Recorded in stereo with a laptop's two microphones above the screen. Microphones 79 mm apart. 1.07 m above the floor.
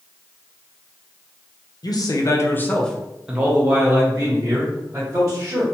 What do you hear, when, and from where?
1.8 s a man speaking: 55° left (ahead or behind), 0.6 m; by 5.6 s 45° right (ahead or behind), 1.6 m